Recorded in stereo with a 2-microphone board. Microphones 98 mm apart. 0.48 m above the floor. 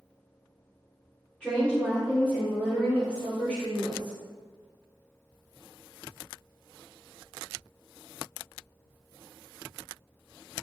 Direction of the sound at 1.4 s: 15° left (ahead or behind).